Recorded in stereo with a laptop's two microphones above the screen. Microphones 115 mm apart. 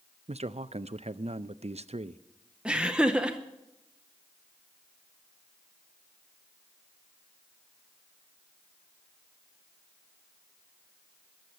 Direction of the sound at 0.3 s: 65° right (ahead or behind).